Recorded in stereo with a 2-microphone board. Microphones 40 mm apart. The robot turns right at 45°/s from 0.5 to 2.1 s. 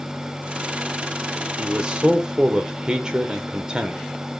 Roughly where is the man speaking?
Right.